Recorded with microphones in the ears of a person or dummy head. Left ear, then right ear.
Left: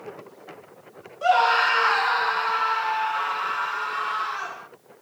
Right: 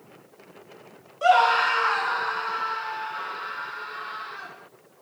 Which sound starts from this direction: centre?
A scream, at 1.2 s.